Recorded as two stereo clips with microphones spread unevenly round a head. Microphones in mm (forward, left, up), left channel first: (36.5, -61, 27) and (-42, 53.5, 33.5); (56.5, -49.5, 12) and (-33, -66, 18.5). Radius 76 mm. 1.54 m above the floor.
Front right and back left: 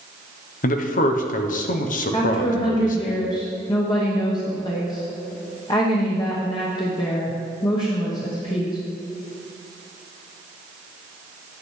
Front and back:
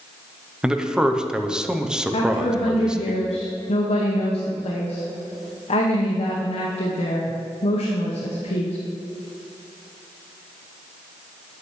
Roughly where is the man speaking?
Right.